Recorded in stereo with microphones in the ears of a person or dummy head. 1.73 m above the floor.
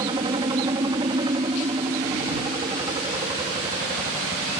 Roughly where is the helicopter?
Right.